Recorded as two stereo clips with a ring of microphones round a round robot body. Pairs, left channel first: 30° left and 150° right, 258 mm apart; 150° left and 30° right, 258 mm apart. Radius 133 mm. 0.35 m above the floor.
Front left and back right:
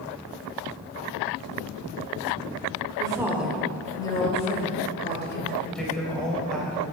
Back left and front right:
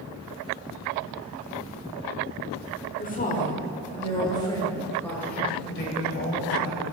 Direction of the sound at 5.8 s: 115° left.